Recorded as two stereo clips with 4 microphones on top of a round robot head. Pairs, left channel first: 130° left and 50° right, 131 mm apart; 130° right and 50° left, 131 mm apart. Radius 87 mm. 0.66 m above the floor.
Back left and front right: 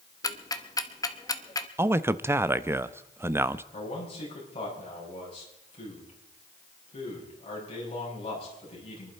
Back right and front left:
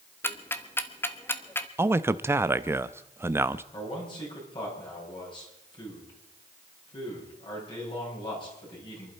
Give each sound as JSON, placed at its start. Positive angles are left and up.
{"t": 0.2, "sound": "ticking", "azimuth_deg": 170, "distance_m": 1.2}
{"t": 1.8, "sound": "a man speaking", "azimuth_deg": 0, "distance_m": 0.6}
{"t": 3.7, "sound": "a man speaking", "azimuth_deg": 175, "distance_m": 6.5}